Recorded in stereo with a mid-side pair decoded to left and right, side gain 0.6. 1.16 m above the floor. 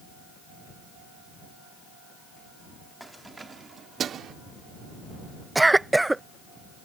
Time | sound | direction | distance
3.0 | keys jangling | 5° right | ?
5.5 | a cough | 10° right | ?